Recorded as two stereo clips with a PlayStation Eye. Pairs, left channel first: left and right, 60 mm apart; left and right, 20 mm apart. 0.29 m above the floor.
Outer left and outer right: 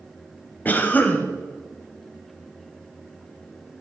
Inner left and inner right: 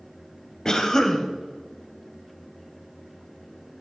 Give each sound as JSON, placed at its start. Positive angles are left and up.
{"t": 0.7, "sound": "a cough", "side_deg": 30, "distance_m": 1.2}